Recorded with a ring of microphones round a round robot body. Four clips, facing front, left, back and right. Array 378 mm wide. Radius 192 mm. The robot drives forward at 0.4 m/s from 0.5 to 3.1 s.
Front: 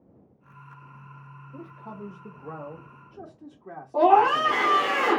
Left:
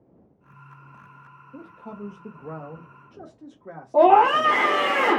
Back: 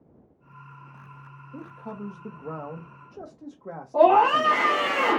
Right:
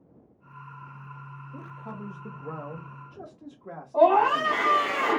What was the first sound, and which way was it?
A man speaking, 130° left.